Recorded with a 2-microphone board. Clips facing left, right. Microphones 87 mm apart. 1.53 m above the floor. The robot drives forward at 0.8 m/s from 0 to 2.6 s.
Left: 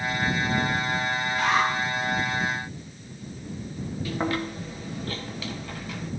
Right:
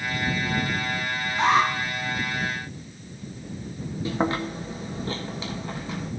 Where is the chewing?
25° right (ahead or behind), 1.4 m.